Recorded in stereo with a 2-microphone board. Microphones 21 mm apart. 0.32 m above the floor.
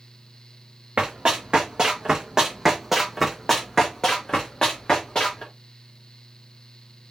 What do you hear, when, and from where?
1.0 s running footsteps: 60° right (ahead or behind), 1.2 m; by 5.5 s 45° left (ahead or behind), 1.6 m